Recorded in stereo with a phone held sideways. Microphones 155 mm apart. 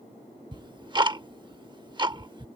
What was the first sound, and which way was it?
Ticking, 30° right (ahead or behind).